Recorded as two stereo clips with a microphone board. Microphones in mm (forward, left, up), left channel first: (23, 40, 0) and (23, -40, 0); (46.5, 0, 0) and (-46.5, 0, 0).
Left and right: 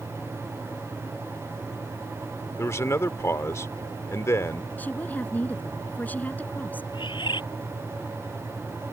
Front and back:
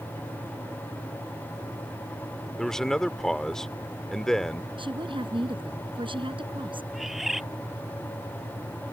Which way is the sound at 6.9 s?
95° left.